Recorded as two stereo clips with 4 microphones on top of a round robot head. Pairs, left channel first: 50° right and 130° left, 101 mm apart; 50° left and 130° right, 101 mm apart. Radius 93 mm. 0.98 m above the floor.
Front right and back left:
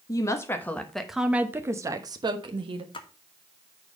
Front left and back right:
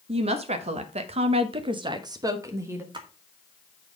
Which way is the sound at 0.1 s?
110° right.